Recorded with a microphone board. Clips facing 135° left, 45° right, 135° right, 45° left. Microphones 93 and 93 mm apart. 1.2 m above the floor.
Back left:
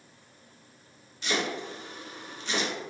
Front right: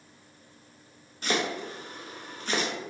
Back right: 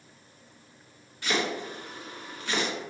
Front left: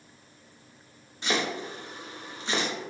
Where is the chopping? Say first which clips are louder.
Front right 1 dB, even; 20° right, 0.7 m.